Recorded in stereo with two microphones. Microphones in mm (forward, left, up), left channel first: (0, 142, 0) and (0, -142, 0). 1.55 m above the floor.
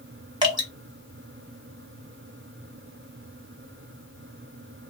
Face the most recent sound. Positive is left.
turn(degrees=-15)  # may be behind; listen again after turning